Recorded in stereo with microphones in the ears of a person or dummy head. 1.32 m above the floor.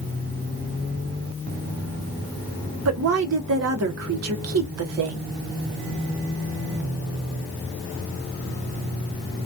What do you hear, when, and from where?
2.9 s a woman speaking: 75° right (ahead or behind), 0.8 m